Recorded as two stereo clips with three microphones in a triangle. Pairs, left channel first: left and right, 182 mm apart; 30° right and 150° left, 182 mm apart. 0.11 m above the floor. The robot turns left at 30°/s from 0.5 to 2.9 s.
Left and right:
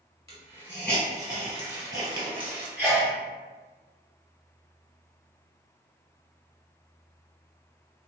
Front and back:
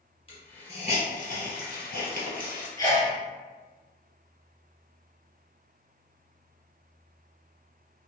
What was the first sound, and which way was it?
A hiss, 20° left.